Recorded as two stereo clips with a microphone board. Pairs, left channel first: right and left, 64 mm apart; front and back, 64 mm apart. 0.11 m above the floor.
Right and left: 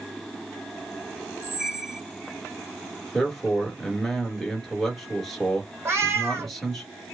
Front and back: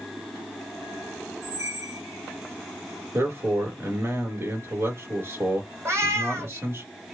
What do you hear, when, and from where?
1.4 s a squeak: 170° left, 1.4 m
3.1 s a man speaking: straight behind, 1.4 m
5.8 s a cat meowing: 135° left, 1.3 m